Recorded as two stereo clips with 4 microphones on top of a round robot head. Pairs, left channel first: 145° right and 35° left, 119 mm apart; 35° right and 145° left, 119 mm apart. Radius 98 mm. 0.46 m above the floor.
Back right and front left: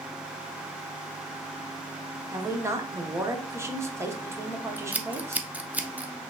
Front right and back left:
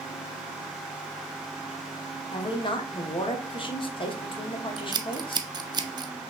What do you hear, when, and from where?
2.3 s a woman speaking: 25° right, 1.1 m
4.8 s scissors: 110° left, 0.7 m